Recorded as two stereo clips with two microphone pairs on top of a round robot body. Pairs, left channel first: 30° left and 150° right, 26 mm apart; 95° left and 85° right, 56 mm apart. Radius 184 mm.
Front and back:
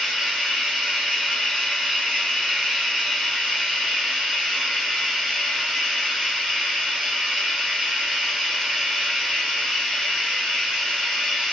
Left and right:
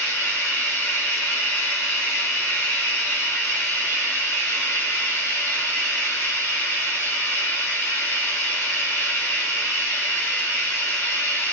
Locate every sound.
0.0 s running water: 145° left, 0.8 m